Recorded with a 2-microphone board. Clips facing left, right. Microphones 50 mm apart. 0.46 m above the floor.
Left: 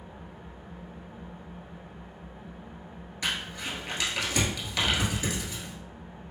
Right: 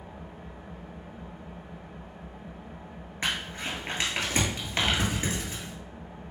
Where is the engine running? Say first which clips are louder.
Right 2 dB; 80° right, 1.2 m.